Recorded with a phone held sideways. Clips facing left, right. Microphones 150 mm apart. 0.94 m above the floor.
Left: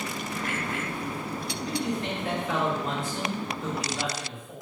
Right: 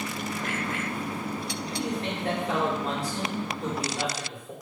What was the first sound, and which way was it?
A man speaking, 35° right (ahead or behind).